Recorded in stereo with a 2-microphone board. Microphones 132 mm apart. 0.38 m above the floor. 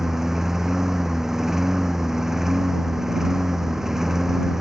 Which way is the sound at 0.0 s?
5° right (ahead or behind).